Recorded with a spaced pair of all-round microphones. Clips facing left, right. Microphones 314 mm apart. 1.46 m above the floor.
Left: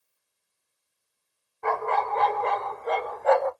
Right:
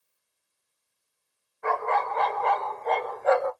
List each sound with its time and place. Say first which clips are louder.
1.6 s a dog barking: left 1 dB; 45° left (ahead or behind), 1.6 m; by 3.5 s 10° right (ahead or behind), 1.1 m